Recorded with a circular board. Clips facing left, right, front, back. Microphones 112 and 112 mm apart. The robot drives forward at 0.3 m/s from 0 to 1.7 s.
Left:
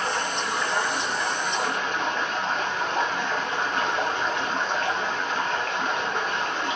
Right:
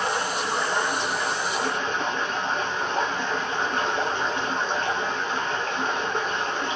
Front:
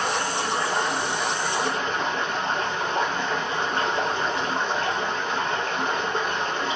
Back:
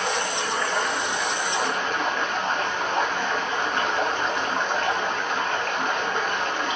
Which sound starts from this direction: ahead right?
Running water, at 0.0 s.